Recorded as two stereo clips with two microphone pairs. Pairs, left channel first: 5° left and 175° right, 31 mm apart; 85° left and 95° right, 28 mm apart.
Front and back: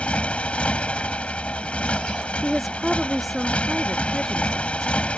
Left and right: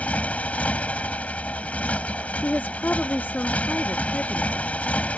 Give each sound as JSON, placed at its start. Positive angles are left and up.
{"t": 0.0, "sound": "a motorcycle", "azimuth_deg": 50}
{"t": 2.4, "sound": "a woman speaking", "azimuth_deg": 90}